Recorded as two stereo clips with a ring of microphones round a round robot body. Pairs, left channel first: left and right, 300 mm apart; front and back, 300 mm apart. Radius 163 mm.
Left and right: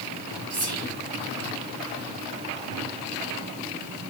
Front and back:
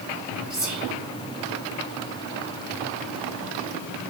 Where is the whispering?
75° right, 2 m.